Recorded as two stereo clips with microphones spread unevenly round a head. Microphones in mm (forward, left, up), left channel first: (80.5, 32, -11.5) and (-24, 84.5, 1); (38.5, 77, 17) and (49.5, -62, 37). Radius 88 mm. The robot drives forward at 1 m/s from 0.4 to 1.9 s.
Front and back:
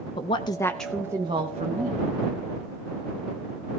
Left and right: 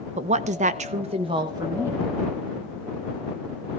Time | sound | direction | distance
0.2 | a woman speaking | 55° right | 0.7 m